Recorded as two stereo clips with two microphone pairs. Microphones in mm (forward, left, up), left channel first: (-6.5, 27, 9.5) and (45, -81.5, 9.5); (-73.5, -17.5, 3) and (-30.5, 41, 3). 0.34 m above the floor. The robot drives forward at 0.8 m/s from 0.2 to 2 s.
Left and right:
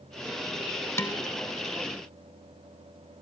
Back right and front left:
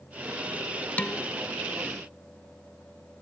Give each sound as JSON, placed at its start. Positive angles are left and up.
{"t": 1.0, "sound": "dishes clattering", "azimuth_deg": 175, "distance_m": 0.7}